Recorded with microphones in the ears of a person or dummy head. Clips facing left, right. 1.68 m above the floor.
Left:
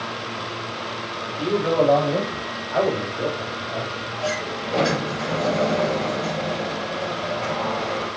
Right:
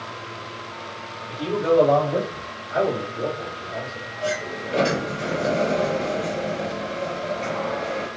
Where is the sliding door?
Centre (ahead or behind), 3.5 m.